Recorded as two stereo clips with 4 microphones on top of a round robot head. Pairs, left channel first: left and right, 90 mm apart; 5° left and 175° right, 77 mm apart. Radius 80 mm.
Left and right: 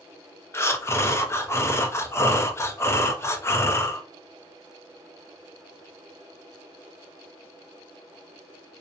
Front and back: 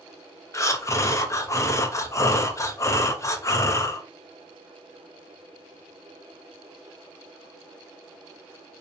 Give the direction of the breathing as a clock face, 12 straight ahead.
11 o'clock.